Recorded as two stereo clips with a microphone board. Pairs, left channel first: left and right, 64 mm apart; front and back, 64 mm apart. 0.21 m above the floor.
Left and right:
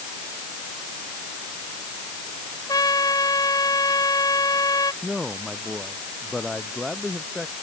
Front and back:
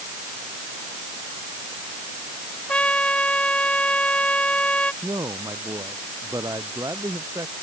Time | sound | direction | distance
2.7 | a trumpet | 70° left | ?
5.0 | a man speaking | 175° left | ?